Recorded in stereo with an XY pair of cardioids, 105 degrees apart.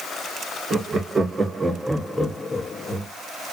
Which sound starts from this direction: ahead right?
Laughter, at 0.7 s.